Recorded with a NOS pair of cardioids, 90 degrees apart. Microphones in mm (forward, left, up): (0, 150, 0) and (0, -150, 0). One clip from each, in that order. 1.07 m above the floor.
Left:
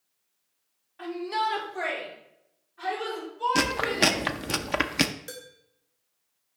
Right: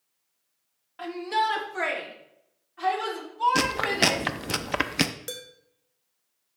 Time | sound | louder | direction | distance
1.0 | a shout | right 2 dB | 70° right | 2 m
3.5 | chewing | even | straight ahead | 0.5 m
5.3 | dishes clattering | right 4 dB | 45° right | 2 m